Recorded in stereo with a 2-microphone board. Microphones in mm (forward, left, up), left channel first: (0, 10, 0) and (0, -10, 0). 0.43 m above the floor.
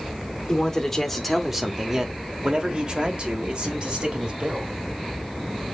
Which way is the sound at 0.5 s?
25° left (ahead or behind).